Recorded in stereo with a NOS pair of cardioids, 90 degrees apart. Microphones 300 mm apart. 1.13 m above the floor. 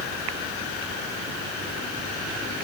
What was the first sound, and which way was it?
Only background noise.